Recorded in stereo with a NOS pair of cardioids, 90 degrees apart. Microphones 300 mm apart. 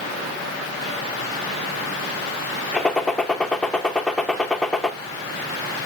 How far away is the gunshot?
About 1.1 m.